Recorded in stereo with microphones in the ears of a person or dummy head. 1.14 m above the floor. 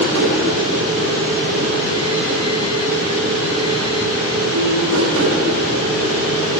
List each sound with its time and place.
0.0 s a machine running: 65° right (ahead or behind), 1.8 m